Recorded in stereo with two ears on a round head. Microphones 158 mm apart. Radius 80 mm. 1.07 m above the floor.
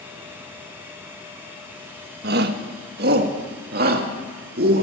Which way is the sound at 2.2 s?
60° right (ahead or behind).